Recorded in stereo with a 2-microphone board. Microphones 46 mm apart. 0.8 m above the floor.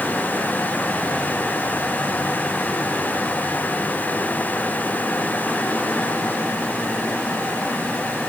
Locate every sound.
Only background noise.